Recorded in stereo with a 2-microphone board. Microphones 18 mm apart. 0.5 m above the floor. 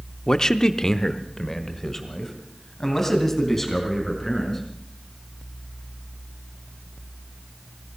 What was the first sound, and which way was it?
A man speaking, 30° left (ahead or behind).